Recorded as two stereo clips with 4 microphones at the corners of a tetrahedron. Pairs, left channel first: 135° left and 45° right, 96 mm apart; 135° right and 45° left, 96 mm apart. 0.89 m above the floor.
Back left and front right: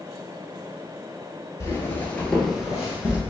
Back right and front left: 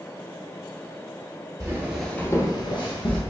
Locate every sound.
1.6 s footsteps: 85° left, 1.1 m; by 3.2 s 125° right, 1.9 m